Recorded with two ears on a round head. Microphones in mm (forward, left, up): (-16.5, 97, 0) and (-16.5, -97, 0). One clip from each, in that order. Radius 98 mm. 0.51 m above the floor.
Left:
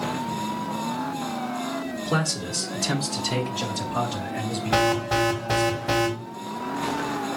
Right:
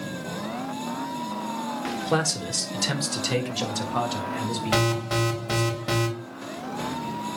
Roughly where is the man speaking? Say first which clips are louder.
Right 2 dB; right.